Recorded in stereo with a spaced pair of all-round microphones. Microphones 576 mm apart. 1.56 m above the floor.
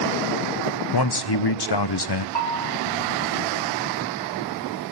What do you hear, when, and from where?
0.9 s a man speaking: 45° left (ahead or behind), 0.6 m
2.4 s a bell: 45° left (ahead or behind), 3.5 m